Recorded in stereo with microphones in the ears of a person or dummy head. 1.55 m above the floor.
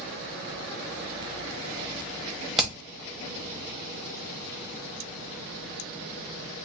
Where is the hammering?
Centre (ahead or behind), 0.9 m.